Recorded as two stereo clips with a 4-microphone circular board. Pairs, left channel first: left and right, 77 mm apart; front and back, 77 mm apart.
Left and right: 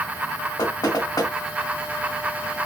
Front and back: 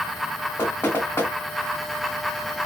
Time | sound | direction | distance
0.6 | knocking | 60° left | 3.5 m